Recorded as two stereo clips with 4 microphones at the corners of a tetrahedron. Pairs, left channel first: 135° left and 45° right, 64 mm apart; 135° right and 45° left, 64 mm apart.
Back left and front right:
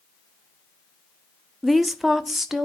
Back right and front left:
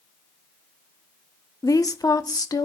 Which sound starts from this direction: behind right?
A woman speaking, at 1.6 s.